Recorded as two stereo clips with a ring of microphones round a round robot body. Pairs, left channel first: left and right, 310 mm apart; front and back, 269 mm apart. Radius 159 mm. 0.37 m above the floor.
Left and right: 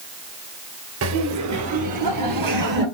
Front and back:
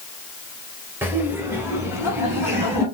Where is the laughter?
100° right, 2 m.